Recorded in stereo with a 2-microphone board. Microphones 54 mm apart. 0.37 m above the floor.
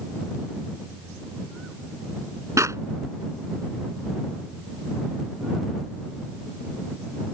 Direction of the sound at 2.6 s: 70° right (ahead or behind).